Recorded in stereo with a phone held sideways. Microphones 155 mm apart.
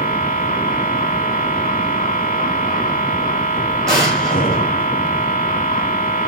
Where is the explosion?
Centre (ahead or behind), 6.5 m.